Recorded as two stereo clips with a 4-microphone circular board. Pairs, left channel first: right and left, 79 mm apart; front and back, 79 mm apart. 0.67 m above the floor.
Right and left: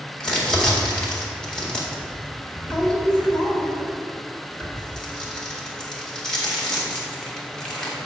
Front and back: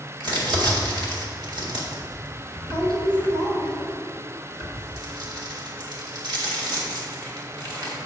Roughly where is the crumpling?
Behind.